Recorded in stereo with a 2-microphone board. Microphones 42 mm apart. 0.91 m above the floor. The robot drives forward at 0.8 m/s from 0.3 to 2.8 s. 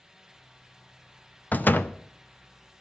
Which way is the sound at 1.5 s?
40° left (ahead or behind).